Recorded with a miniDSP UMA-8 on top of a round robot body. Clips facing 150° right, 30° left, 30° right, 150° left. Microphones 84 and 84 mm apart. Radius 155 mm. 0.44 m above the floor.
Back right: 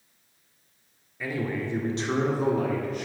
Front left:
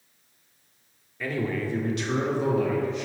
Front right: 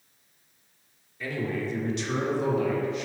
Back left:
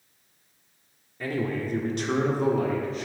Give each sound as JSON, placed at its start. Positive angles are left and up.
{"t": 1.2, "sound": "a man speaking", "azimuth_deg": 130, "distance_m": 1.6}